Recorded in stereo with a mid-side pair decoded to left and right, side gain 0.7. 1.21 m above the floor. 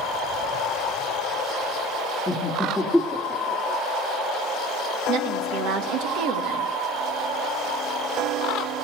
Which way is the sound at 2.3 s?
10° right.